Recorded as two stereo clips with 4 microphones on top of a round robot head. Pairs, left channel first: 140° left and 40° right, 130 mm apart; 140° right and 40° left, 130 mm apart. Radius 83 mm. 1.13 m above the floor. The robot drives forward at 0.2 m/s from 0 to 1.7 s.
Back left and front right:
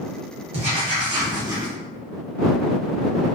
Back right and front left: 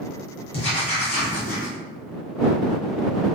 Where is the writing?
90° right, 0.9 m; by 1.7 s 105° right, 0.9 m.